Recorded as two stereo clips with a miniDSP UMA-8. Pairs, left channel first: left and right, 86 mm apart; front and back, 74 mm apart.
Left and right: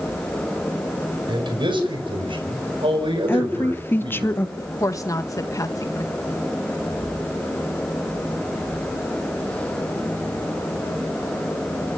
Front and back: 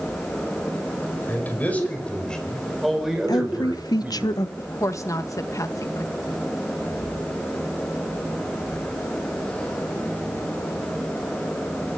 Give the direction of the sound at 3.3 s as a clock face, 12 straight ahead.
11 o'clock.